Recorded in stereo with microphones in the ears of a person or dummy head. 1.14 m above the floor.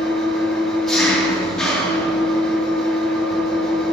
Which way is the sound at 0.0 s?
Centre (ahead or behind).